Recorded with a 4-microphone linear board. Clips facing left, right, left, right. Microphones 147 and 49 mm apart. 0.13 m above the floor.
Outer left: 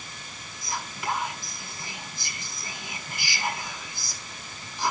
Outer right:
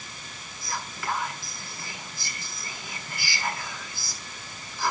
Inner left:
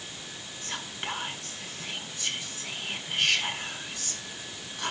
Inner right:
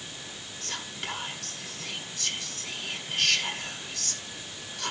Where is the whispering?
20° left (ahead or behind), 1.2 m.